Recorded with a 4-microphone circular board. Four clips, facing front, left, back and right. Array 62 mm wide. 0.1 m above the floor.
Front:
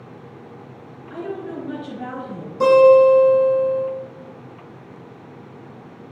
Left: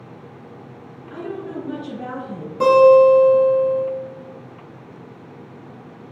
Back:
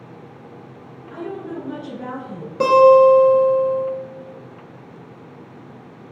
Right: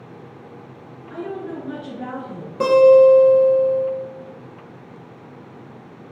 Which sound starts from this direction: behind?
A guitar, at 2.6 s.